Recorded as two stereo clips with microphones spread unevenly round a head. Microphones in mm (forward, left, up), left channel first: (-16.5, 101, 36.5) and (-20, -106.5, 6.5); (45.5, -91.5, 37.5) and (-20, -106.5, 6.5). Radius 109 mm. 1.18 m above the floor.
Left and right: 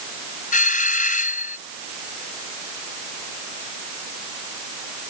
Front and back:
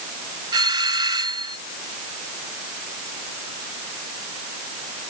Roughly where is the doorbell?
Behind left.